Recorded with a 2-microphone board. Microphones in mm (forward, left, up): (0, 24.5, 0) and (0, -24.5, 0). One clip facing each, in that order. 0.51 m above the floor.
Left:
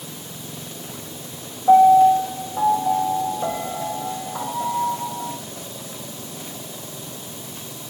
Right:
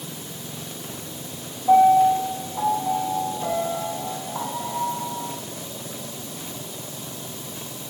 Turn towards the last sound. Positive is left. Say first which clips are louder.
# left 3 dB
turn(degrees=40)  # may be behind; listen again after turning